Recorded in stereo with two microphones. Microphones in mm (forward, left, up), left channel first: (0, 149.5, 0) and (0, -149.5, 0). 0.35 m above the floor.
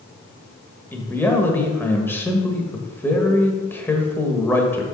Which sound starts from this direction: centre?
A man speaking, at 0.9 s.